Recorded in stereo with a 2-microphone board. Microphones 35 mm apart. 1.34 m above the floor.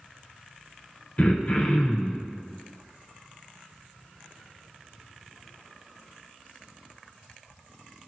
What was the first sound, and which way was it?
Throat clearing, 40° left (ahead or behind).